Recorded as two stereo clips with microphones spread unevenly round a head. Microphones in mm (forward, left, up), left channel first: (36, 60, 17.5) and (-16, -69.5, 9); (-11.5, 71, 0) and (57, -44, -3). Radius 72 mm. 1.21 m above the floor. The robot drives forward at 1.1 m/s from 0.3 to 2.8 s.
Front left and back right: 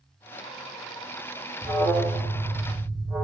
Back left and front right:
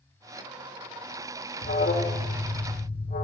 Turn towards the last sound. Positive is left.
turn(degrees=170)